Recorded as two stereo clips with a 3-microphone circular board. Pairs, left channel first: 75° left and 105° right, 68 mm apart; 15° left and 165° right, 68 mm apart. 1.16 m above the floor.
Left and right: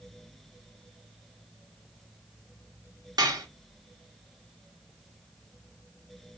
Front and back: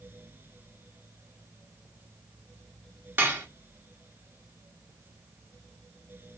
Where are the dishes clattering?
105° right, 1.1 m.